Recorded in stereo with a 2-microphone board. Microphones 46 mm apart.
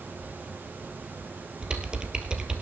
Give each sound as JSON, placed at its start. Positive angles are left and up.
{"t": 1.6, "sound": "typing on a keyboard", "side_deg": -20, "distance_m": 1.5}